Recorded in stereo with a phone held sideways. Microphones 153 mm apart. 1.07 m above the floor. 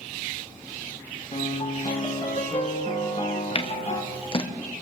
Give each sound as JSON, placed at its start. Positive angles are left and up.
{"t": 1.3, "sound": "a piano", "side_deg": 50, "distance_m": 2.5}
{"t": 3.5, "sound": "scissors", "side_deg": 35, "distance_m": 1.0}